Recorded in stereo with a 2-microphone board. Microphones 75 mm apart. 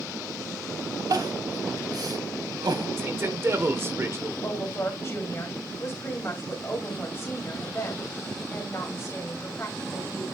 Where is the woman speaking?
35° left (ahead or behind), 3 m.